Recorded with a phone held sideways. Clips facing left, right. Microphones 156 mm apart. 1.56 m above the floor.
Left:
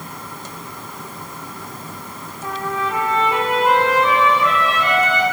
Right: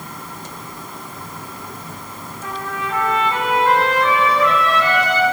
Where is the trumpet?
20° left (ahead or behind), 3.5 m.